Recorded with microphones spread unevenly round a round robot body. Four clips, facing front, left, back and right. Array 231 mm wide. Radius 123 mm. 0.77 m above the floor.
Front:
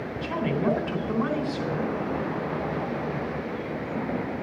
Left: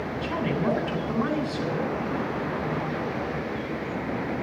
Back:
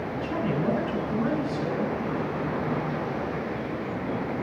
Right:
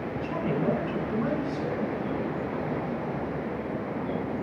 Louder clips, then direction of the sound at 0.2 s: Left 1 dB, front 2 dB; 45° left.